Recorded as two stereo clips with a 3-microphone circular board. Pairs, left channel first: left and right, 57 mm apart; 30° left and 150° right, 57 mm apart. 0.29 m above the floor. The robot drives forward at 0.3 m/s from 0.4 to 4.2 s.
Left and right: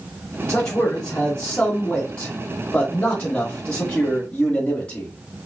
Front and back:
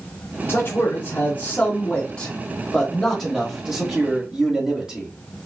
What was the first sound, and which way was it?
A man speaking, 25° left.